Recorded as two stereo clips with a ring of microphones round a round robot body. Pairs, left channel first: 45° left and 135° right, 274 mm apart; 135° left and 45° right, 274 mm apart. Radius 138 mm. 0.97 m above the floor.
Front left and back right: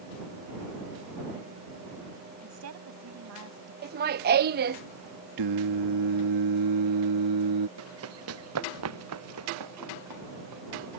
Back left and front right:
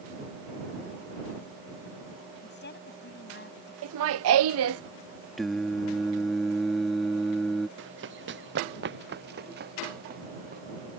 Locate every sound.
2.4 s a woman speaking: 170° right
3.8 s laughter: 80° right
5.4 s singing: 135° right
7.8 s running footsteps: 95° right; by 10.6 s 105° right